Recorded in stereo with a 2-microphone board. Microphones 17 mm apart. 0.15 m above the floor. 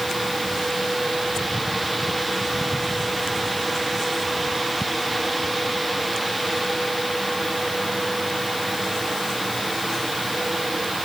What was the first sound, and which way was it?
Only background noise.